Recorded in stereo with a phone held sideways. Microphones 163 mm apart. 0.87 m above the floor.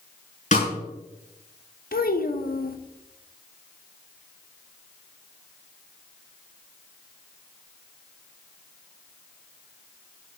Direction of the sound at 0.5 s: 45° left (ahead or behind).